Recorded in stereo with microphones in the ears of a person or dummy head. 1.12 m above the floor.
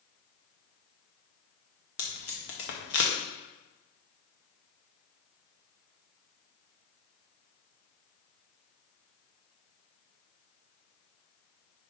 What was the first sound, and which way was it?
Tape being pulled, 60° left (ahead or behind).